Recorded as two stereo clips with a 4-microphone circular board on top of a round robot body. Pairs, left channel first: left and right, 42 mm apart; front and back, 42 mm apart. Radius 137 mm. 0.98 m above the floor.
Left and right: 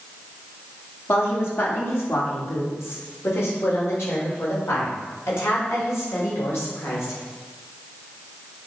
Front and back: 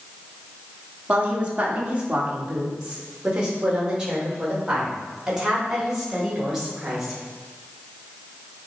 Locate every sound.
1.1 s a woman speaking: 120° left, 3.5 m; by 7.2 s 100° left, 6.5 m